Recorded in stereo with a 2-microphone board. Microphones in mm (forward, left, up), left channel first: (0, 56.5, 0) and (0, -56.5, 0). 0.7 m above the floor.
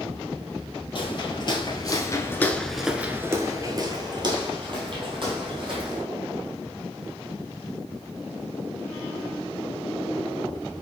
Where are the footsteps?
45° left (ahead or behind), 1.3 m; by 6.0 s 50° right (ahead or behind), 2.5 m.